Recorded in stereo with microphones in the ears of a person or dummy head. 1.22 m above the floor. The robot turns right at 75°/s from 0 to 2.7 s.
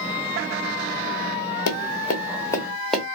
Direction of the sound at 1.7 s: 60° left (ahead or behind).